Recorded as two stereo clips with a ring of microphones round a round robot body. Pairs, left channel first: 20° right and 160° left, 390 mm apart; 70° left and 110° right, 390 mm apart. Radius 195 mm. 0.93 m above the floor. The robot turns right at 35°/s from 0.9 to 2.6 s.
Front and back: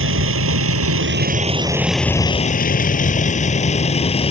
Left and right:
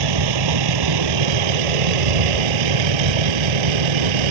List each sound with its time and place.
0.0 s a vehicle: 145° right; by 4.3 s 100° right